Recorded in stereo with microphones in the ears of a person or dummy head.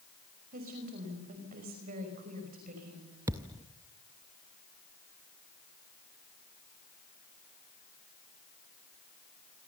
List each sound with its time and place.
0.5 s a woman speaking: 40° right (ahead or behind), 5.5 m
3.3 s a thud: 10° right (ahead or behind), 0.5 m